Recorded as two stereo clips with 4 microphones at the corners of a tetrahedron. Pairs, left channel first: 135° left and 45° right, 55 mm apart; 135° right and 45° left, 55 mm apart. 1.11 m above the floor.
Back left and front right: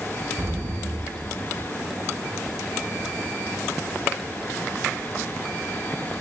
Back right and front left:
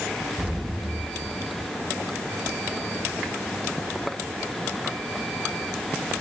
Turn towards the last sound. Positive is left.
turn(degrees=-20)